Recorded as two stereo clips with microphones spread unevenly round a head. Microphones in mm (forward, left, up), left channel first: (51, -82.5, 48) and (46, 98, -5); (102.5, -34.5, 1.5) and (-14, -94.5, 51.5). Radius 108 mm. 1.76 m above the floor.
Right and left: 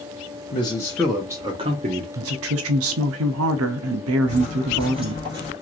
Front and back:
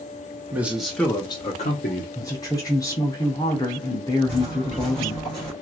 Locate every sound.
0.5 s a man speaking: 110° right, 0.8 m; by 2.0 s 50° left, 0.8 m
2.1 s a woman speaking: 105° left, 0.6 m
4.3 s footsteps: 140° left, 1.9 m; by 5.5 s 175° right, 1.7 m